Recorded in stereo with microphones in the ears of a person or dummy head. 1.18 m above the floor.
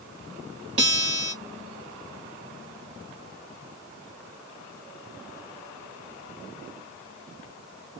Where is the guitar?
40° right (ahead or behind), 2 m.